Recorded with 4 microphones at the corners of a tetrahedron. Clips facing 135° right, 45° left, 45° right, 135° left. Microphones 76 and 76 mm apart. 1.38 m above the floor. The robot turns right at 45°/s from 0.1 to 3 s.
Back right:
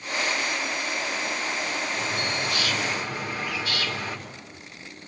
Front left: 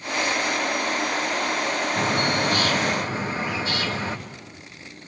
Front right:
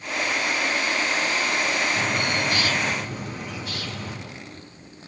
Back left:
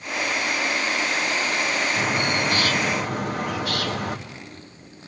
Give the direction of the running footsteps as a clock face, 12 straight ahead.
No running footsteps in this recording.